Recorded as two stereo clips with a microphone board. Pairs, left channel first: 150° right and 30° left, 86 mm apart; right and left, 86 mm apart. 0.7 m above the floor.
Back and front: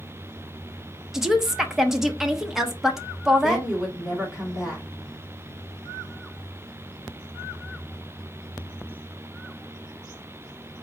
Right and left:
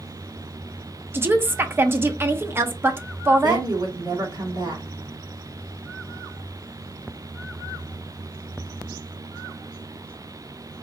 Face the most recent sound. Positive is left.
turn(degrees=115)